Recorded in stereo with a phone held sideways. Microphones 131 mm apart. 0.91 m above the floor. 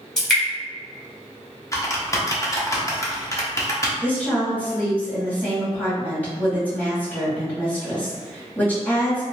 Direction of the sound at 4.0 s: 15° left (ahead or behind).